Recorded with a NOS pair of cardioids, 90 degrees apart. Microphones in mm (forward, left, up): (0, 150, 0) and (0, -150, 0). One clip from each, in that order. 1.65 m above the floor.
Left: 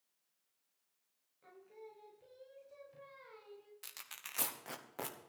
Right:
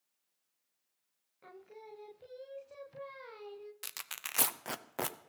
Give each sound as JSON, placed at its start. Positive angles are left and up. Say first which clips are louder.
{"t": 1.4, "sound": "singing", "louder": "right 4 dB", "azimuth_deg": -50, "distance_m": 0.9}
{"t": 3.8, "sound": "tearing paper", "louder": "right 6 dB", "azimuth_deg": -40, "distance_m": 0.7}